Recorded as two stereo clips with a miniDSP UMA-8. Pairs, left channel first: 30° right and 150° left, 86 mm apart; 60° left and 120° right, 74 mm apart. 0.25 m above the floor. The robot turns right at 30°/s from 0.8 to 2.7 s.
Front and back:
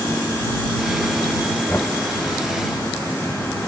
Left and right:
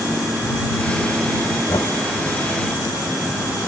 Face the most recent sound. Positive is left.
turn(degrees=65)